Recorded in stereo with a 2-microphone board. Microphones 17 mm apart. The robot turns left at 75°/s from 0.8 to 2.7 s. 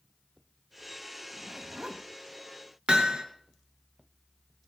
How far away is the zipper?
About 1.9 m.